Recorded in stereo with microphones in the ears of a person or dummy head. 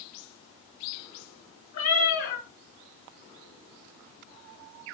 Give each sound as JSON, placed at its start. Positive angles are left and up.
{"t": 1.7, "sound": "a cat meowing", "side_deg": 45, "distance_m": 1.5}